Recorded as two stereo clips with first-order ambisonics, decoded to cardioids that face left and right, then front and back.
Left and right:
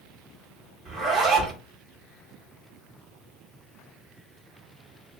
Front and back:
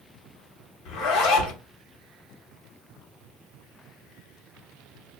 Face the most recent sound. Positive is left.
turn(degrees=-15)